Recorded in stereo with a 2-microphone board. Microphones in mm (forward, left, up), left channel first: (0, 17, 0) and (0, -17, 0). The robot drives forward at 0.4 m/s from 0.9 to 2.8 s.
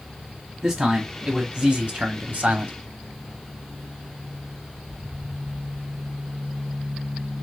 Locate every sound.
0.6 s a man speaking: 30° right (ahead or behind), 1.2 m; by 2.8 s 65° right (ahead or behind), 0.7 m